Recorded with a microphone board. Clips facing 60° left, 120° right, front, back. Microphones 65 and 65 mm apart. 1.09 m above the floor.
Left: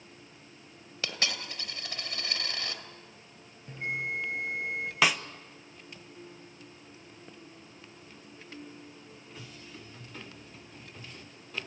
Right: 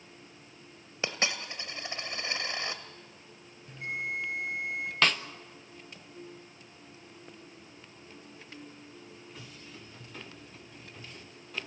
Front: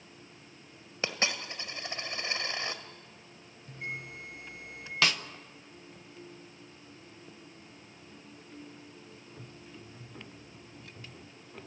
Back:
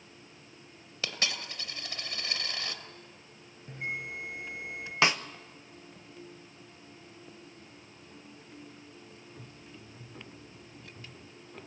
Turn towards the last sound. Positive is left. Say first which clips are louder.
# left 1 dB, back 3 dB
turn(degrees=135)